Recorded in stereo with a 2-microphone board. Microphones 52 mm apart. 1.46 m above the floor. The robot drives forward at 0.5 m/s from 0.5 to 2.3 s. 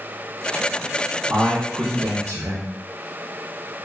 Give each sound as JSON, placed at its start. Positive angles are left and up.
{"t": 1.3, "sound": "a man speaking", "side_deg": -50, "distance_m": 0.7}